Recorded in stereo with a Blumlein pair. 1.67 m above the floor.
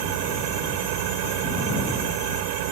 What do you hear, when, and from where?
0.0 s an engine running: 45° right